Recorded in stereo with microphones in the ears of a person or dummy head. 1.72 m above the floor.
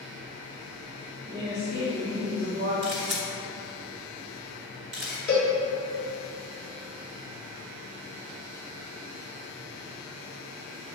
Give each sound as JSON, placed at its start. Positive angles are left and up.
{"t": 1.3, "sound": "a woman speaking", "side_deg": -55, "distance_m": 1.8}
{"t": 2.8, "sound": "a camera shutter", "side_deg": -35, "distance_m": 1.7}
{"t": 5.3, "sound": "a cowbell", "side_deg": 0, "distance_m": 1.4}